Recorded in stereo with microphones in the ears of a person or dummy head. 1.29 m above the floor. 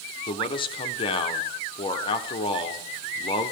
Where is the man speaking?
25° left (ahead or behind), 0.8 m.